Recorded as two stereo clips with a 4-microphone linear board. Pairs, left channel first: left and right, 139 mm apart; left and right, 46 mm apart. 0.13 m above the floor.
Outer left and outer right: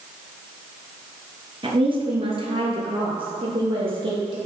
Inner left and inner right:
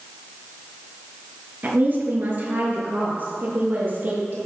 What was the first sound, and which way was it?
A woman speaking, 40° right (ahead or behind).